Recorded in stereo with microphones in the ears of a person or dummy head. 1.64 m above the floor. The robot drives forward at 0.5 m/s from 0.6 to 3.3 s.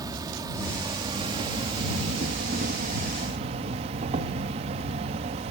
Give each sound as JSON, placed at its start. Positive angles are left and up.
{"t": 0.0, "sound": "an insect", "side_deg": -20}